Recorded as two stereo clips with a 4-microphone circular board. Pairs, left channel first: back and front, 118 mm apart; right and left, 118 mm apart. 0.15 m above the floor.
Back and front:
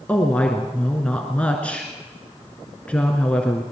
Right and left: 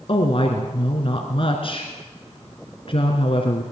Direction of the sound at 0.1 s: 105° right.